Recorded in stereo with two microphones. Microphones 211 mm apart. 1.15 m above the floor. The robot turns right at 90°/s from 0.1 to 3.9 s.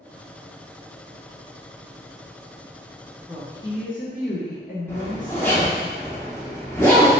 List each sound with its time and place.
3.3 s a woman speaking: 5° right, 0.6 m; by 5.9 s 50° left, 0.6 m
4.9 s a zipper: 10° left (ahead or behind), 1.0 m